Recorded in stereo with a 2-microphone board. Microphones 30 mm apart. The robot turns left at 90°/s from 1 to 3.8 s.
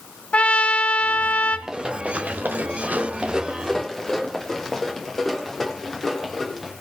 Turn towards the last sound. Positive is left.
turn(degrees=5)  # may be behind; listen again after turning